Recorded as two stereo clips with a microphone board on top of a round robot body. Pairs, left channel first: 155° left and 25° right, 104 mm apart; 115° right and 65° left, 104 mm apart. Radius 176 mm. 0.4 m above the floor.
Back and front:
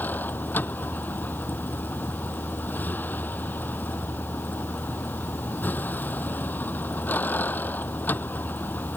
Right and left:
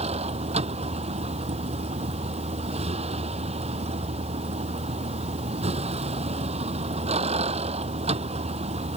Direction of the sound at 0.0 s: 85° left.